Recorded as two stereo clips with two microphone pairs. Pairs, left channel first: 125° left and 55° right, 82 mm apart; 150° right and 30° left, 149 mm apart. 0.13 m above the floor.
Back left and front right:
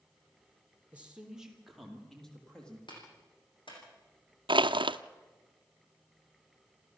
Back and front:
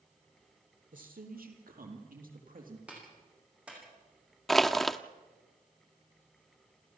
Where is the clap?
115° left, 7 m.